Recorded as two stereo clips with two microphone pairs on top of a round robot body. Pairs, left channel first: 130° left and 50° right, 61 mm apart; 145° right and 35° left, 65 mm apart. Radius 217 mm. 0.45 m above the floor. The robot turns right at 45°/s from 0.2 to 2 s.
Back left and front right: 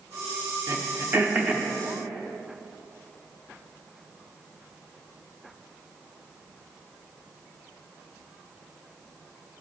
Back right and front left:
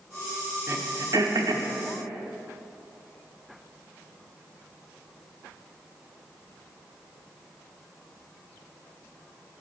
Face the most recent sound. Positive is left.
turn(degrees=45)